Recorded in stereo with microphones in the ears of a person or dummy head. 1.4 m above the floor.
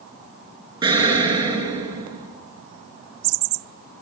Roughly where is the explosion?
Right.